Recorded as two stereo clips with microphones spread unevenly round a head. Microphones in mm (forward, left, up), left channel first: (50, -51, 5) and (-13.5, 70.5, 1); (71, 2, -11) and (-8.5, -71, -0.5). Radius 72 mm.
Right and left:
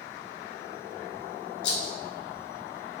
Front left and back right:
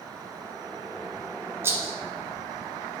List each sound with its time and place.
1.6 s a rattle: 70° right, 0.7 m